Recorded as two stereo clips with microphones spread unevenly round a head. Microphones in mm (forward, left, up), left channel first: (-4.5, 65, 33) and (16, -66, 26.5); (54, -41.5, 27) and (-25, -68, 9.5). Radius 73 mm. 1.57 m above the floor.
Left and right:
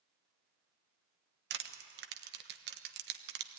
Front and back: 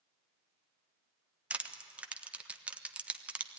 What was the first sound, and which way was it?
Crushing, 85° right.